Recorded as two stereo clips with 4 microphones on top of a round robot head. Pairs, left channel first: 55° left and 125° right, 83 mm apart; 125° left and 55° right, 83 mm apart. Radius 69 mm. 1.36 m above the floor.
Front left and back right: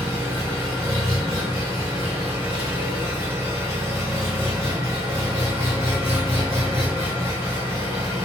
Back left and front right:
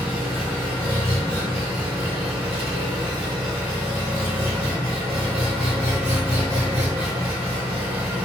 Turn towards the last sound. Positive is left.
turn(degrees=-65)